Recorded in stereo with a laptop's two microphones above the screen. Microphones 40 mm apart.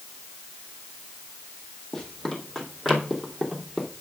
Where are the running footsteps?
10° left (ahead or behind), 2.5 m; by 3.9 s 10° right (ahead or behind), 2.0 m.